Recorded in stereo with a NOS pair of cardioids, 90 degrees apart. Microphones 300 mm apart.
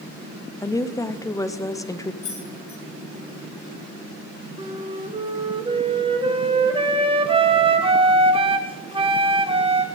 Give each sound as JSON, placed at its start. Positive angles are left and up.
{"t": 0.6, "sound": "a woman speaking", "azimuth_deg": 10, "distance_m": 0.9}
{"t": 2.2, "sound": "keys jangling", "azimuth_deg": 45, "distance_m": 4.5}
{"t": 4.6, "sound": "a flute", "azimuth_deg": -20, "distance_m": 1.4}